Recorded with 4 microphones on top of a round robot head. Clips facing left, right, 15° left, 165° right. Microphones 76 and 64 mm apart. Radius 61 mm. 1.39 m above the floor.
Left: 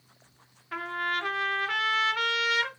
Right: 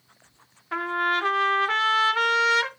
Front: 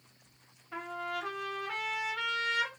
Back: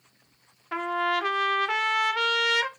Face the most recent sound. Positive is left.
turn(degrees=-145)